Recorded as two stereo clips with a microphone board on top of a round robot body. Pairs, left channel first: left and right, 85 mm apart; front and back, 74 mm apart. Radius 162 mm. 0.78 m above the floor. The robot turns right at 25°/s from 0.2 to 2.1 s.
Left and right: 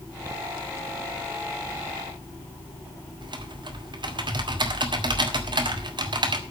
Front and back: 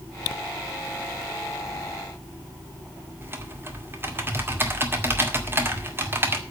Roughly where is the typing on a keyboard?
Behind right.